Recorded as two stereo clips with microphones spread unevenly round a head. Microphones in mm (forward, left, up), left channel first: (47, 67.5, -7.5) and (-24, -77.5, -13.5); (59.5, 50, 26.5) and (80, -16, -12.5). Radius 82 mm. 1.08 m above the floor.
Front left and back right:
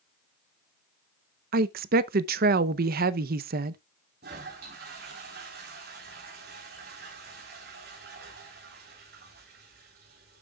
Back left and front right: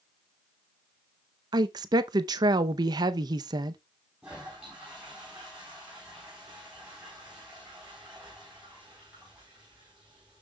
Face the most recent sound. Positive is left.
turn(degrees=-150)